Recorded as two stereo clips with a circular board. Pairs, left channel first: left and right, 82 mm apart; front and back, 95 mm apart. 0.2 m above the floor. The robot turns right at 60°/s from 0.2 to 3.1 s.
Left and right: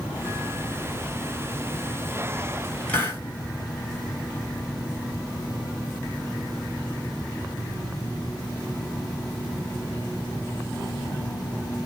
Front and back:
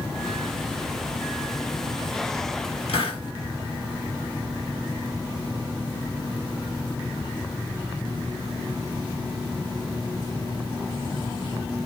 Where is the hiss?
20° left, 1.1 m; by 3.2 s 30° left, 1.1 m.